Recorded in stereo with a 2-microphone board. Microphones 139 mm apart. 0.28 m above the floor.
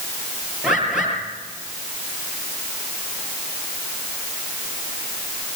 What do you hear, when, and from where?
0.6 s a bird: 5° right (ahead or behind), 6.5 m